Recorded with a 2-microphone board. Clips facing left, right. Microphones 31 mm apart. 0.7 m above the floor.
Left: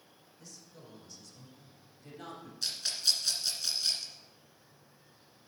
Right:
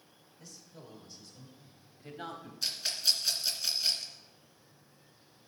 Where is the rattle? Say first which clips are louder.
Right 1 dB; 5° right (ahead or behind), 2 m.